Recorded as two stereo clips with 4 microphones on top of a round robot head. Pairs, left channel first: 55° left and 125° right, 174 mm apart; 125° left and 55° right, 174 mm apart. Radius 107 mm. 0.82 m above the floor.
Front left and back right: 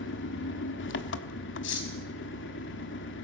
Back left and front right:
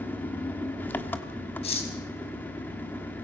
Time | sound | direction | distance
0.0 | an engine running | 45° left | 1.2 m
1.6 | cutlery clinking | 70° left | 4.5 m